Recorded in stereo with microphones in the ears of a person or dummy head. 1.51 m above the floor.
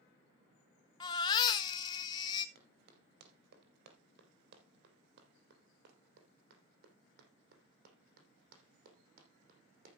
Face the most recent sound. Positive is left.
turn(degrees=-50)  # may be behind; listen again after turning